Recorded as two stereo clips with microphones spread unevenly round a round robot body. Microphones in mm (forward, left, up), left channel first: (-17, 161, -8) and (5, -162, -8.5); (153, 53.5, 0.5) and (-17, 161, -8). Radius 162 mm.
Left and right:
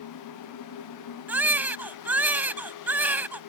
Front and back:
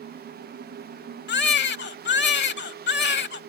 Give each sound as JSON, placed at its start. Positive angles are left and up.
{"t": 1.3, "sound": "a baby crying", "azimuth_deg": 0}